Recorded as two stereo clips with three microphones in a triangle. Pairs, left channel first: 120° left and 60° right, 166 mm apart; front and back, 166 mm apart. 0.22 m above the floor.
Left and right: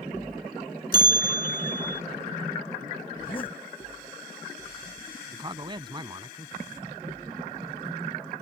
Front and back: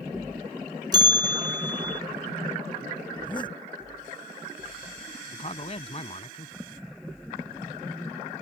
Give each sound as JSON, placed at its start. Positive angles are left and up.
{"t": 0.9, "sound": "a bell", "azimuth_deg": 120}
{"t": 3.1, "sound": "a zipper", "azimuth_deg": 60}
{"t": 5.3, "sound": "a man speaking", "azimuth_deg": -15}